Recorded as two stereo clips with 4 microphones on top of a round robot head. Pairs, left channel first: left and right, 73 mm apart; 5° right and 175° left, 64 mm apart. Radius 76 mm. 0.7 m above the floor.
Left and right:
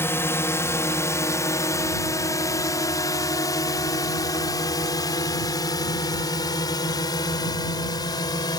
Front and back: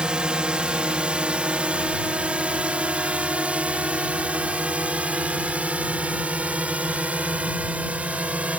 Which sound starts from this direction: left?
A drone, at 0.0 s.